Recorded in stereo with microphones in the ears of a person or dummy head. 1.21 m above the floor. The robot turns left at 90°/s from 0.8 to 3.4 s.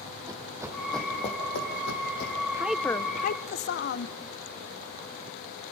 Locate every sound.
0.3 s running footsteps: 15° right (ahead or behind), 3 m; by 2.4 s 30° left (ahead or behind), 3.5 m
2.5 s a woman speaking: 160° right, 0.7 m; by 4.2 s 120° left, 0.7 m